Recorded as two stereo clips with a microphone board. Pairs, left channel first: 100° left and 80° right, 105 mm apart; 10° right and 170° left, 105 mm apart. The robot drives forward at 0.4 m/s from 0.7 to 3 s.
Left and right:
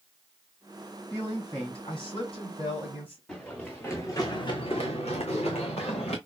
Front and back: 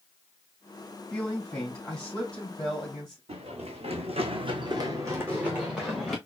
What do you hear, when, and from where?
1.1 s a man speaking: 65° left, 3.5 m; by 3.2 s 80° left, 3.5 m
3.3 s running footsteps: 175° right, 2 m; by 6.2 s 80° left, 2.5 m